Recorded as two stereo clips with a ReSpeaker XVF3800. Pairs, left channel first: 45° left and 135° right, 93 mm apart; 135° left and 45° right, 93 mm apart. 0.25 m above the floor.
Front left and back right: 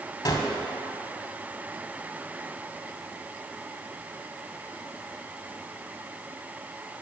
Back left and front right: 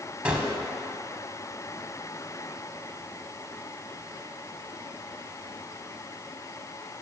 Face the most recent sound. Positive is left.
turn(degrees=30)